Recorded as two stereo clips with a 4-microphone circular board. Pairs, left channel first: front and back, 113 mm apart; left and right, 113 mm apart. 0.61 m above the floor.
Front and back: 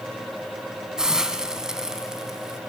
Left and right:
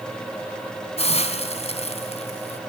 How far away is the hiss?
About 3 m.